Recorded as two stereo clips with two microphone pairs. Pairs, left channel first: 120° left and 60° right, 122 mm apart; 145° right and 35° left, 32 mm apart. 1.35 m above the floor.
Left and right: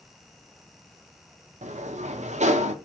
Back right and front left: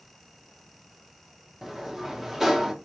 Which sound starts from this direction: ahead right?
A sliding door, at 1.6 s.